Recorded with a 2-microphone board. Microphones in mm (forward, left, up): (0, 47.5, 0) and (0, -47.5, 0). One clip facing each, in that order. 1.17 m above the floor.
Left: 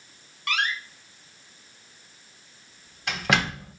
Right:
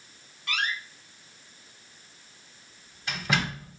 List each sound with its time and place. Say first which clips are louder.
0.5 s a door slam: left 3 dB; 85° left, 1.5 m